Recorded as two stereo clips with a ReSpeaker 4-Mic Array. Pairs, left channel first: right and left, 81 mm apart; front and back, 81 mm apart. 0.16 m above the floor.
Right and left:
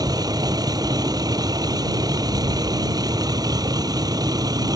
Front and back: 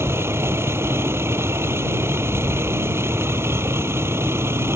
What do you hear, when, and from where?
0.0 s a vehicle: 125° left